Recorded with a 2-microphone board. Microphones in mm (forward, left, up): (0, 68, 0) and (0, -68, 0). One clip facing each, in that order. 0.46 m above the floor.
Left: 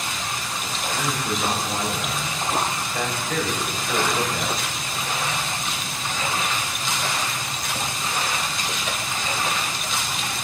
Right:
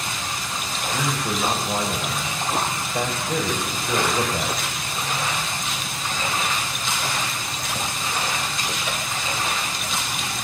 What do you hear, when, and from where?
0.9 s a man speaking: 25° right (ahead or behind), 1.6 m